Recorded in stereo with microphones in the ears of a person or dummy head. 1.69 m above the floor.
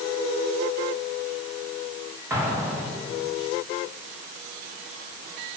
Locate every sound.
2.3 s an explosion: 10° right (ahead or behind), 3.5 m